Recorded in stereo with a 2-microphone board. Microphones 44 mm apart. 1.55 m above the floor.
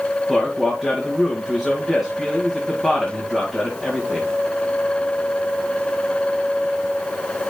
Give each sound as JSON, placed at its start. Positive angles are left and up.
{"t": 0.3, "sound": "a man speaking", "side_deg": -10, "distance_m": 2.0}